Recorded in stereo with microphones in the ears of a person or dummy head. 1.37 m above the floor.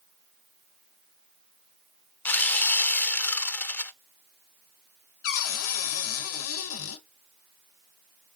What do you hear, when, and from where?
2.2 s sawing: 10° left (ahead or behind), 0.6 m
5.2 s a cupboard door: 80° left, 1.2 m